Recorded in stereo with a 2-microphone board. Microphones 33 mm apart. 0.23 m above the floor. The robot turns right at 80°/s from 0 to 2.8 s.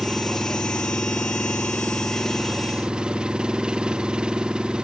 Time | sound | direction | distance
0.0 | an engine running | 15° right | ?